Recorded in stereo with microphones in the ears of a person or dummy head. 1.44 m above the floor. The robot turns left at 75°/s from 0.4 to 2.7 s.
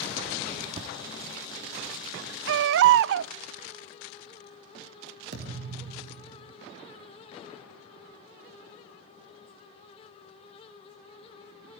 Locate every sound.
0.8 s a thud: 25° right (ahead or behind), 1.5 m; by 1.0 s 10° right (ahead or behind), 1.5 m
2.5 s a baby crying: 65° right (ahead or behind), 0.5 m
5.3 s a thud: 65° right (ahead or behind), 5.5 m